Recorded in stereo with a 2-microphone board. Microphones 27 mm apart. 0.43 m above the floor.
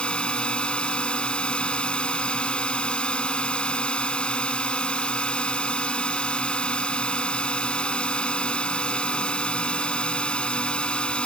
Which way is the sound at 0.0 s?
40° left (ahead or behind).